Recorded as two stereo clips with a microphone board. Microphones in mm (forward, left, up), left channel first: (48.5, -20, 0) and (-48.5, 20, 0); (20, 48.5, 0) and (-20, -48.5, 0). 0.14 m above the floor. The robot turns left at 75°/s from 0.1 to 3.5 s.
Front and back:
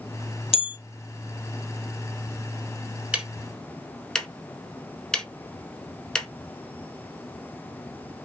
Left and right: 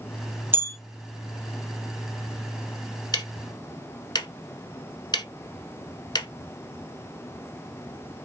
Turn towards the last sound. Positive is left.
turn(degrees=55)